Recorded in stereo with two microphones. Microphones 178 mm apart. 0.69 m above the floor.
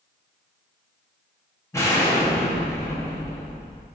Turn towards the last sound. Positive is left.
turn(degrees=15)  # may be behind; listen again after turning